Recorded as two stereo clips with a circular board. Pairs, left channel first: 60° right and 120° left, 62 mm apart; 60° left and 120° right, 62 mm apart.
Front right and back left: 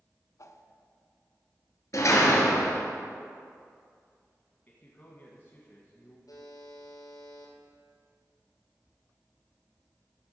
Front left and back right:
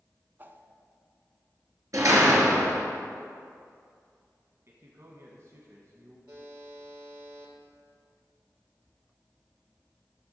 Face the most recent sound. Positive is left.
turn(degrees=-75)